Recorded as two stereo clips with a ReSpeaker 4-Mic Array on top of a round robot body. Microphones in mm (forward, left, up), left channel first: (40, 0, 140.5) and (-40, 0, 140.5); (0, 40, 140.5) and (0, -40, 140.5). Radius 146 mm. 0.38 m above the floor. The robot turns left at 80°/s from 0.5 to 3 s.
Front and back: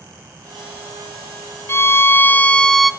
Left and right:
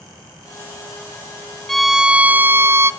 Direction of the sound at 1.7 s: 5° left.